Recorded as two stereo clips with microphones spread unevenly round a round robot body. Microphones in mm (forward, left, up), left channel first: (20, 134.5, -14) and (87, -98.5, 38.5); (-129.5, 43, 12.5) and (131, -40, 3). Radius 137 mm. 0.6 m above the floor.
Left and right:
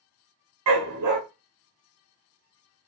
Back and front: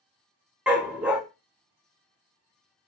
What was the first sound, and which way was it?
A dog barking, 105° right.